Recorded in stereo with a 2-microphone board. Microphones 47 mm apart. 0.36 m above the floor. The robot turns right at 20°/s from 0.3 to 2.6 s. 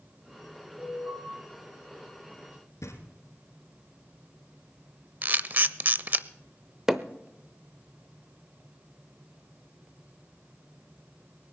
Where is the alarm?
55° right (ahead or behind), 7 m; by 1.2 s 45° right (ahead or behind), 7 m.